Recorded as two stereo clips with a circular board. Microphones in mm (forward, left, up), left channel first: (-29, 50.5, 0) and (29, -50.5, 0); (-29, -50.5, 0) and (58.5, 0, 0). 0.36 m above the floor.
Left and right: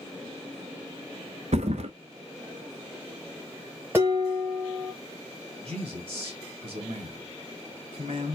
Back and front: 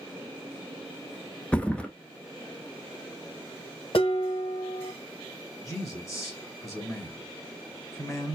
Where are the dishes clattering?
130° right, 1.2 m.